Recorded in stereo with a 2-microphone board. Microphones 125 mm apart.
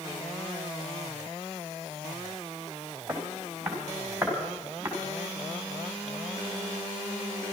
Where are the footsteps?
5° right (ahead or behind), 4 m; by 4.9 s 15° right (ahead or behind), 5 m.